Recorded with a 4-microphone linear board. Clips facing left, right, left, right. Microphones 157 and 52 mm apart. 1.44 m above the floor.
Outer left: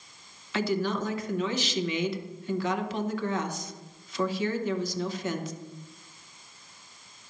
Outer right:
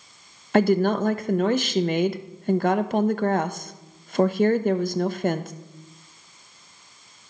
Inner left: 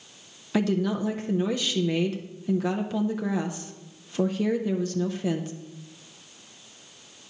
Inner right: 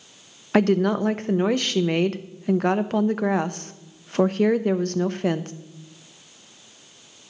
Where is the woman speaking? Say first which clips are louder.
Outer right 9 dB, inner right 6 dB; 55° right (ahead or behind), 0.6 m.